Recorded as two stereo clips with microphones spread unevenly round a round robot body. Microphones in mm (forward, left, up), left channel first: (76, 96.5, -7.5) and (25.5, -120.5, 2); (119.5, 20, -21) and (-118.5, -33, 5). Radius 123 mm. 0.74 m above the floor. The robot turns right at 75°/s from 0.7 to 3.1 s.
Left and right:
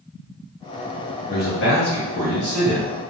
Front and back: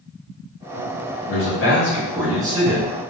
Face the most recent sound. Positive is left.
turn(degrees=165)